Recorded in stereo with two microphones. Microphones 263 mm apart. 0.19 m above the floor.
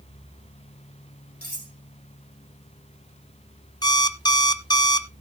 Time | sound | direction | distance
1.4 | cutlery clinking | 35° left (ahead or behind) | 4.5 m
3.8 | an alarm clock | 15° left (ahead or behind) | 0.5 m